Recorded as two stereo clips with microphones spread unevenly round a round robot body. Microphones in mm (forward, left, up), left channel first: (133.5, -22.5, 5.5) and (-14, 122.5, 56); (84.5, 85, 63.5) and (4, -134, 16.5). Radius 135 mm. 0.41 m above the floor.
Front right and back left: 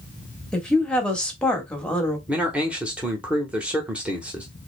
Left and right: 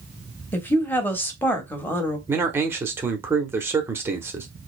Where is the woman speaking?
30° right, 1.1 m.